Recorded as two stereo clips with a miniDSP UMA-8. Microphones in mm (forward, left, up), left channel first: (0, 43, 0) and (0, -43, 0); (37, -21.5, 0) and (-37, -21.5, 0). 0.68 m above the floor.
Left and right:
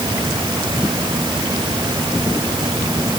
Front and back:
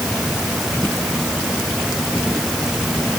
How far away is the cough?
No cough in this recording.